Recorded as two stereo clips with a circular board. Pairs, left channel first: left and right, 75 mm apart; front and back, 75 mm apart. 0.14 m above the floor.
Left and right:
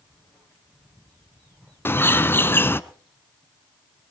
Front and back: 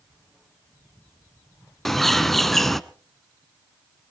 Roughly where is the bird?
Left.